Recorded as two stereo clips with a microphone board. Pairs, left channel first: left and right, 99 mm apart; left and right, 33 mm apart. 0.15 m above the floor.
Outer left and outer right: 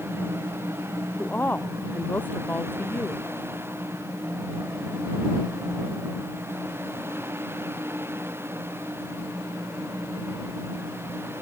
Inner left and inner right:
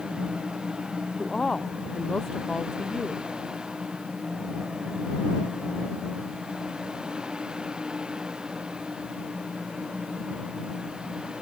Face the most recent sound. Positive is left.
turn(degrees=15)  # may be behind; listen again after turning